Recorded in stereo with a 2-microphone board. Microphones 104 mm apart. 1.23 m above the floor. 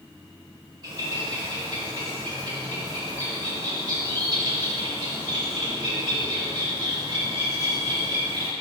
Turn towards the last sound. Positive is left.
turn(degrees=-40)  # may be behind; listen again after turning